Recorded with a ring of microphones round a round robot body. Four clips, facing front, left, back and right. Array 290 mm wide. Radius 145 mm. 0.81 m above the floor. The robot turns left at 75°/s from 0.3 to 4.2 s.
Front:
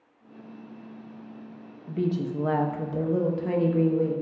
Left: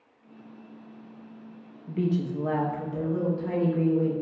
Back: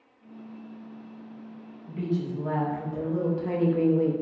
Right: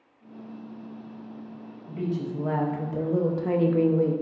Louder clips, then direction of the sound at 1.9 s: Left 3 dB, front 2 dB; 50° left.